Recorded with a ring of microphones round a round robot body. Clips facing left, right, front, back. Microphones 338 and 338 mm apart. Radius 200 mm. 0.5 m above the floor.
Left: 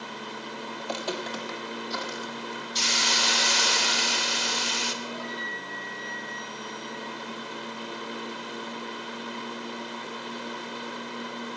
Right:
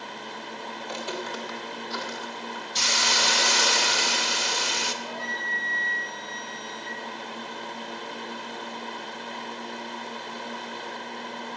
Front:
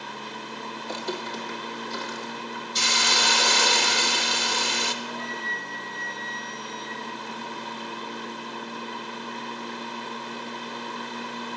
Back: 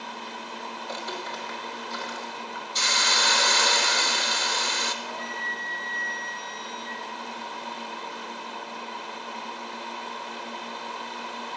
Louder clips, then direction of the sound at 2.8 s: Right 2 dB, front 2 dB; 55° right.